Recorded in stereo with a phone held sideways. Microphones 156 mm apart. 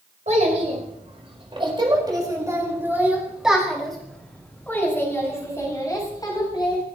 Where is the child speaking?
55° right (ahead or behind), 5.5 m; by 6.8 s 30° left (ahead or behind), 8 m.